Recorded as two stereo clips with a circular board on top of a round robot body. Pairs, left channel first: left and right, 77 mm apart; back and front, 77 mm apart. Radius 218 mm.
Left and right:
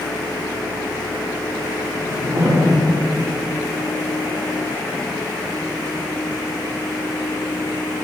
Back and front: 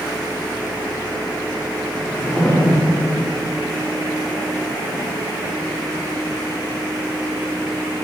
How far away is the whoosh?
About 3.5 m.